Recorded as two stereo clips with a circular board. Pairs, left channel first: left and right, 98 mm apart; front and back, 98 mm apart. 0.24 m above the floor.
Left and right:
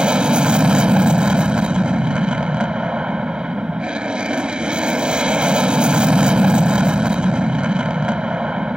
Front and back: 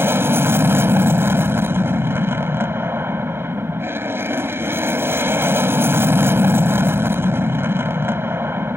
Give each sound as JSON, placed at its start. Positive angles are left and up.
{"t": 0.0, "sound": "an aircraft", "azimuth_deg": -155}